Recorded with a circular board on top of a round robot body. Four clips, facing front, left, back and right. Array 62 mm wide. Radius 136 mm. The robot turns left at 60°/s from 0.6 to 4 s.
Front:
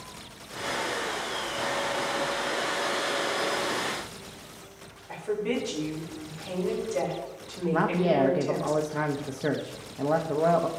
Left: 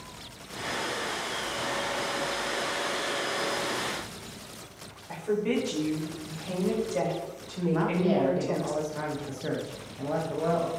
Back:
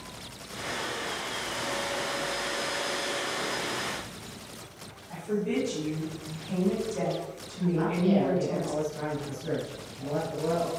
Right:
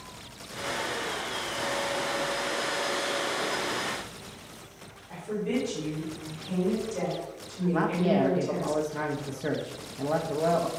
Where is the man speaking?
10° right, 1.0 m.